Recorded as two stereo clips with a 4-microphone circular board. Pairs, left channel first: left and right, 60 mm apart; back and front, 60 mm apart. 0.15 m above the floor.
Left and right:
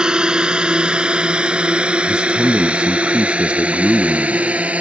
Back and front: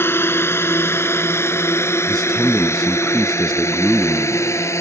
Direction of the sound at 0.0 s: 160° right.